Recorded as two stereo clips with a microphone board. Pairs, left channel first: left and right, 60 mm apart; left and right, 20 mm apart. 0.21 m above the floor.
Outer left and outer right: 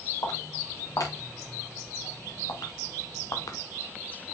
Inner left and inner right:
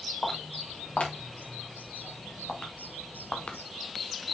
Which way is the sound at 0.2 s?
80° left.